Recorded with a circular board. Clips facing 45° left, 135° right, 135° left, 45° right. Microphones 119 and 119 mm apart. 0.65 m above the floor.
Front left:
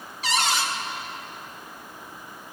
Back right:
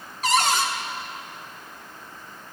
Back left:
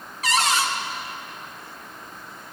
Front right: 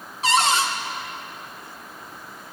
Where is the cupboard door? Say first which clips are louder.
Back right 4 dB, front right 2 dB; 100° right, 1.1 m.